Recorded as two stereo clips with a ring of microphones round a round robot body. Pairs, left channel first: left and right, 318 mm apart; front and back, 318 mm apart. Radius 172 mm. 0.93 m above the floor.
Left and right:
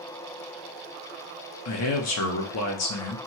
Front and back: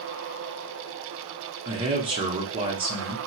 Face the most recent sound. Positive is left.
turn(degrees=110)